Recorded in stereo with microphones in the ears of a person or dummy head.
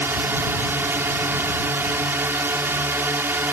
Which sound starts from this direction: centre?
A drone, at 0.0 s.